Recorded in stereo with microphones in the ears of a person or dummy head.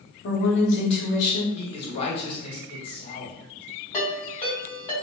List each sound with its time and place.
0.2 s a woman speaking: 70° left (ahead or behind), 0.8 m
1.5 s a man speaking: 35° left (ahead or behind), 1.0 m
3.9 s a ringtone: 20° left (ahead or behind), 1.5 m